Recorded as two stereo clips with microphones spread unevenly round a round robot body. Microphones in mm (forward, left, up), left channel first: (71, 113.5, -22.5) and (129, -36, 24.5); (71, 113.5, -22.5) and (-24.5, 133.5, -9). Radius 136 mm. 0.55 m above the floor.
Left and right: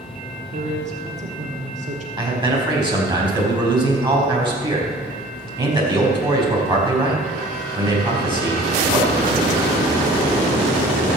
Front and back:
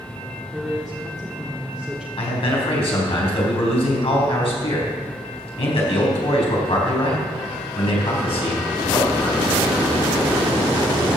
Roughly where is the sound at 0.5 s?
Right.